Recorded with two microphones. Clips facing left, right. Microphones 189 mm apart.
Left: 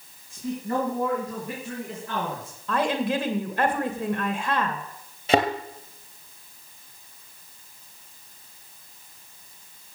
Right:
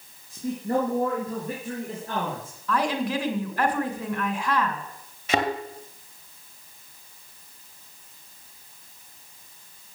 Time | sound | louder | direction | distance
0.3 | a man speaking | right 2 dB | 35° right (ahead or behind) | 4 m
2.7 | a woman speaking | left 1 dB | 25° left (ahead or behind) | 2.5 m
5.3 | a thud | left 4 dB | 35° left (ahead or behind) | 2.5 m